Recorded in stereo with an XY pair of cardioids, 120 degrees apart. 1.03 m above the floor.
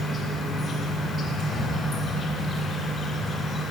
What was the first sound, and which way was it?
An insect, 40° left.